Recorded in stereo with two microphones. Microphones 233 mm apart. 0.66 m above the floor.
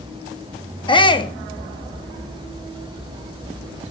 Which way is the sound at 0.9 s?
20° left (ahead or behind).